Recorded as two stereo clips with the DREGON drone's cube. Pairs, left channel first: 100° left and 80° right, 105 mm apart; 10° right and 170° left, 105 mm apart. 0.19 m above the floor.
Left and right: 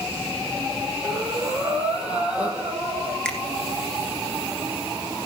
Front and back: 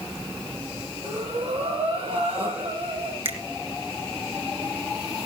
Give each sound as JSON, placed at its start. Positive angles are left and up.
{"t": 1.0, "sound": "breathing", "azimuth_deg": -160, "distance_m": 4.0}
{"t": 3.2, "sound": "a finger snap", "azimuth_deg": -175, "distance_m": 2.5}